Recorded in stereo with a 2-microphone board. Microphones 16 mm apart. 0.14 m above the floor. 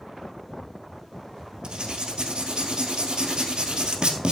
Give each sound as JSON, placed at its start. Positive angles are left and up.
{"t": 1.6, "sound": "writing", "side_deg": -55, "distance_m": 1.8}